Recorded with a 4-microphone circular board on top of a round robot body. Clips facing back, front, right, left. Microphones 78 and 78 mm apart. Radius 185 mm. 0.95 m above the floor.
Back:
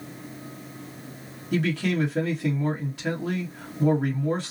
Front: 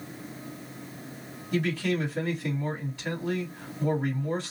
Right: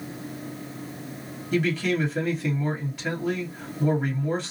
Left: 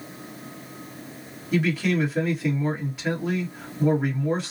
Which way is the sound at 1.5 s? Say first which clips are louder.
Back 2 dB, left 1 dB; 175° left.